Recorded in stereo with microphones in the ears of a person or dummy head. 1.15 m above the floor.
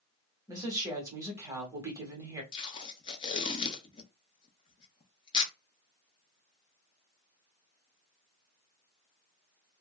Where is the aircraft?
I don't hear an aircraft.